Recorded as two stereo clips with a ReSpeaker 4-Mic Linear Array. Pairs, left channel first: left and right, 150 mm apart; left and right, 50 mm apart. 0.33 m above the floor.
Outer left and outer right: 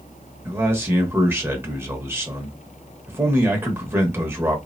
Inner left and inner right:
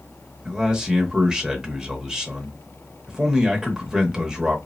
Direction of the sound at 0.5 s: 15° right (ahead or behind).